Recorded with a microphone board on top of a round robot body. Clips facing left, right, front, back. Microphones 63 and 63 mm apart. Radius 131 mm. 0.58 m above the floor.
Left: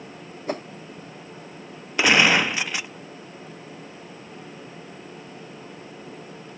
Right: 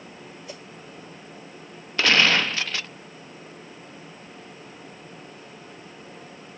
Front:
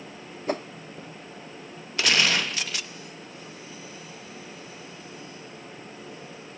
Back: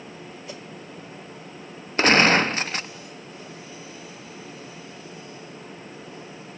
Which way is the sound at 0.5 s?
45° left.